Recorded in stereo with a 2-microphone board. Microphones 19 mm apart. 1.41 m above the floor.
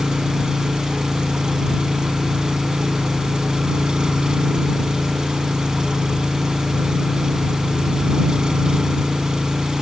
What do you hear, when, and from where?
0.0 s an engine running: 40° right (ahead or behind)